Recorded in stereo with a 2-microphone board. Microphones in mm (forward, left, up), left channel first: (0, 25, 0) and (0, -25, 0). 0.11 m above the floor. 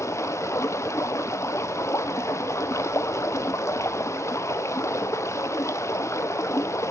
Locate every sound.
0.0 s running water: 70° left (ahead or behind), 0.9 m